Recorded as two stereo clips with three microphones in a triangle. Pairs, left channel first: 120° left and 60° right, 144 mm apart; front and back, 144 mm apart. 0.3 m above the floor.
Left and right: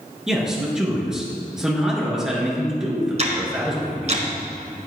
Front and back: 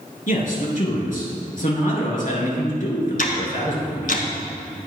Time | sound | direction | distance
0.3 | a man speaking | 25° left | 4 m
3.2 | ticking | 20° right | 2.0 m